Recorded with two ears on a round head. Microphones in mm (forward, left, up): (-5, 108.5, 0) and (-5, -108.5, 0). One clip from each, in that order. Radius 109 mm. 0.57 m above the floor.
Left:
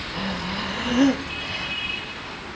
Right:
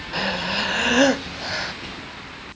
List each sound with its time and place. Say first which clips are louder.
0.1 s breathing: right 8 dB; 45° right (ahead or behind), 0.6 m